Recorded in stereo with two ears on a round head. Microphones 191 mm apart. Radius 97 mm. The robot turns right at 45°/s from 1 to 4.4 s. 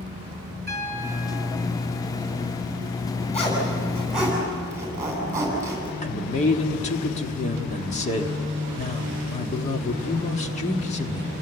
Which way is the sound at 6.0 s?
35° left (ahead or behind).